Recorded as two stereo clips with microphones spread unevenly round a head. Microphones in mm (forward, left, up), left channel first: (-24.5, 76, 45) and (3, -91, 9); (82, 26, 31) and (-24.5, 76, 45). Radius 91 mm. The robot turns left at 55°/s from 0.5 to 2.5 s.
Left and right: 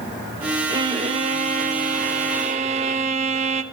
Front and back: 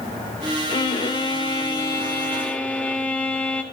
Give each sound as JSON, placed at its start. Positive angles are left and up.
{"t": 0.7, "sound": "a violin", "azimuth_deg": -10, "distance_m": 0.5}